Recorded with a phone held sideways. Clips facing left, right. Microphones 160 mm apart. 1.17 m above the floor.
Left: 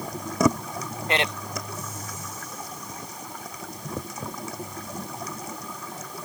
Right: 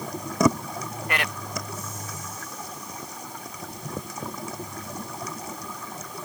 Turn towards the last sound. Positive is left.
turn(degrees=25)  # may be behind; listen again after turning